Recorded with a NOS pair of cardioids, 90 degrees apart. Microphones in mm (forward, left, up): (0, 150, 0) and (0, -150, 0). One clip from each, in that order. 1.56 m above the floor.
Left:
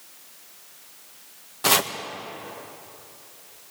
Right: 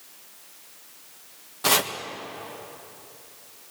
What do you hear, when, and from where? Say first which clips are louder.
1.6 s chopping: left 1 dB; 10° left, 1.5 m